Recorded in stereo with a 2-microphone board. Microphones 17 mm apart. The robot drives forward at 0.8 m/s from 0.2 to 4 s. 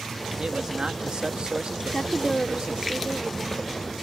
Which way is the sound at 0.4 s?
50° right (ahead or behind).